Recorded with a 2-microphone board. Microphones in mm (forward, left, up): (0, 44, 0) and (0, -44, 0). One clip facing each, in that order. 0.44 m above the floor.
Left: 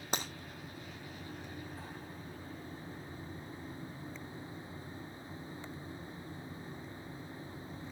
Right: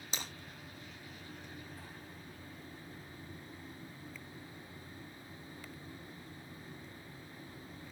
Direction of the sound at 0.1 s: 60° left (ahead or behind).